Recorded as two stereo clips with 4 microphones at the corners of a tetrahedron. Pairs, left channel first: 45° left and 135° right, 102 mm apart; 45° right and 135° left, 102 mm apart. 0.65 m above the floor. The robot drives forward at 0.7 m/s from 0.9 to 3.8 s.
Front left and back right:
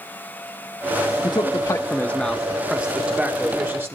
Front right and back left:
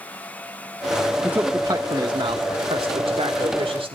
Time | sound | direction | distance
1.2 | a man speaking | 65° left | 0.9 m